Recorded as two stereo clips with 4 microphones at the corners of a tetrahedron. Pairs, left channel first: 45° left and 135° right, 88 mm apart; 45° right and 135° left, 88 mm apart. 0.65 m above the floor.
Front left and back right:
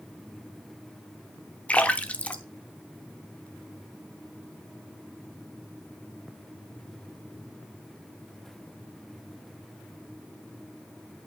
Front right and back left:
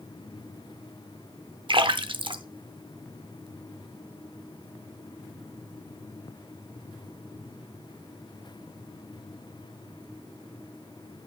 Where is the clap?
No clap in this recording.